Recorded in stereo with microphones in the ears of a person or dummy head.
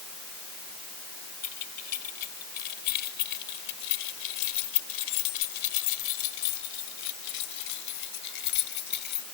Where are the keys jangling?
50° left (ahead or behind); by 9.2 s 55° left (ahead or behind).